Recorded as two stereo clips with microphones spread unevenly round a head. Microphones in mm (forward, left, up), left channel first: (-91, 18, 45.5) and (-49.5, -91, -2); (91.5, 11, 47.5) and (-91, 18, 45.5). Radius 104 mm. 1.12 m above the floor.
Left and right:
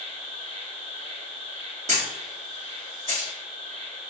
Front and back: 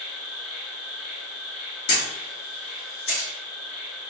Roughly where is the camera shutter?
Ahead.